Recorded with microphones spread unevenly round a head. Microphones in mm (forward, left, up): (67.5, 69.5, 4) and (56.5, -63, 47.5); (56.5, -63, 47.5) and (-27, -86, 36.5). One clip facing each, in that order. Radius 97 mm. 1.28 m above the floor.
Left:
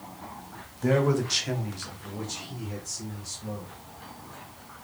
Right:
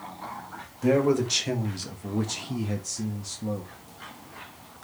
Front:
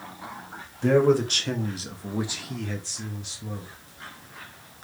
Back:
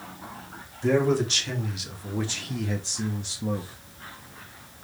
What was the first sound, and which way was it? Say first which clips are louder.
A man speaking: right 2 dB, front 3 dB; 15° right.